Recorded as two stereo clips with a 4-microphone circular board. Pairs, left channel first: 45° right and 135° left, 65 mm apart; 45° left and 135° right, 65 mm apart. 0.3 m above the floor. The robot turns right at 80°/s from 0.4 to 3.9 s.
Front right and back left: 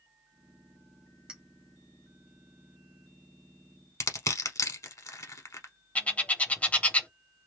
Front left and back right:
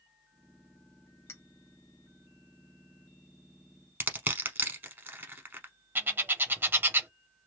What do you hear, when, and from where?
1.3 s a clink: 65° left, 0.7 m; by 1.4 s 75° left, 0.7 m
4.0 s crushing: 75° right, 0.8 m
6.0 s a bird: 100° right, 0.6 m